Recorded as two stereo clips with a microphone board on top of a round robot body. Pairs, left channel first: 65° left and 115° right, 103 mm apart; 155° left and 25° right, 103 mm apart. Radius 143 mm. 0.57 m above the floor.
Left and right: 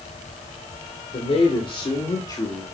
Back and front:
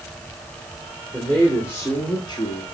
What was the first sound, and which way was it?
A man speaking, 80° left.